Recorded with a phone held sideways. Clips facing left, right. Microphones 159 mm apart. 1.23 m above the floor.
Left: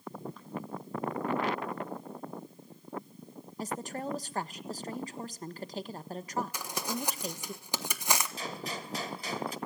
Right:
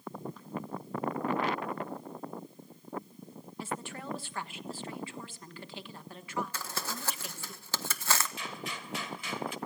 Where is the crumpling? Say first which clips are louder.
Left 4 dB; 15° left (ahead or behind), 1.3 m.